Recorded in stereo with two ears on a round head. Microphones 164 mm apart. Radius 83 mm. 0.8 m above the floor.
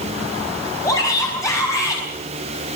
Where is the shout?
20° left (ahead or behind), 5.5 m.